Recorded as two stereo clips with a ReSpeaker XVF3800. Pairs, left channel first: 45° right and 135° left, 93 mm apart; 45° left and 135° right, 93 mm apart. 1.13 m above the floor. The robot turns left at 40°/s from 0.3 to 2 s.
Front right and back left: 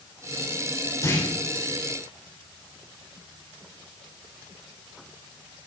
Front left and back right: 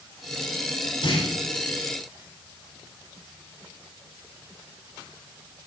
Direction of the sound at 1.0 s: 15° left.